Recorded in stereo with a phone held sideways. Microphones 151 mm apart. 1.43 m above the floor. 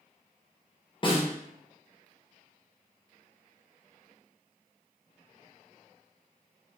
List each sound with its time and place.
1.0 s a snare drum: 35° left (ahead or behind), 0.6 m